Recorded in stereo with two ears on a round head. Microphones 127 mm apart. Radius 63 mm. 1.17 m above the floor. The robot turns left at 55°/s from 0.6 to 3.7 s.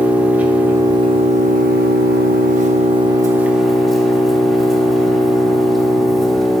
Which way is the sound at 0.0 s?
10° right.